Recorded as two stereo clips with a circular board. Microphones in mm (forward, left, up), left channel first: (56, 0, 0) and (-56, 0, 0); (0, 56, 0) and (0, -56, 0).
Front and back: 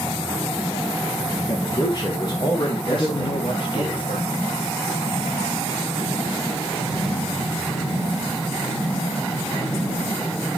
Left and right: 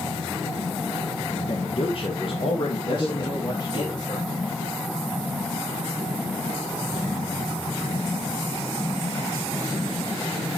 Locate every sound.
1.5 s a man speaking: 55° left, 1.7 m; by 3.9 s 45° left, 3 m
2.9 s a man speaking: 40° left, 3 m